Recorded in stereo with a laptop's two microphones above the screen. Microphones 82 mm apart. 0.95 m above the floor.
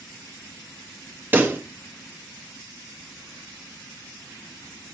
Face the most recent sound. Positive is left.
turn(degrees=-25)  # may be behind; listen again after turning